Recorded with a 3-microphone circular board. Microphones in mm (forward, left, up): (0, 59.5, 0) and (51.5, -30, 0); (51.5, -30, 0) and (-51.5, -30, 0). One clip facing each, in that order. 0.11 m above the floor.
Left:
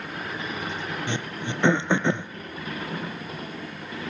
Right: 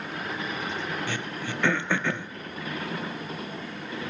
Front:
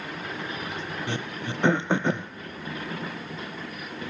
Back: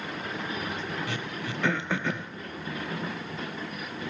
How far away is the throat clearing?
About 0.5 m.